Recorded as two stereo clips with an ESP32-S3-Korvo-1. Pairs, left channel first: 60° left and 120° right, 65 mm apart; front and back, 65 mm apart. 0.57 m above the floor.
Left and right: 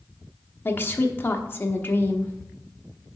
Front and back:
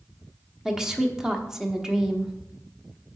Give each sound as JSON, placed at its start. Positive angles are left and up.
{"t": 0.7, "sound": "a woman speaking", "azimuth_deg": 105, "distance_m": 0.9}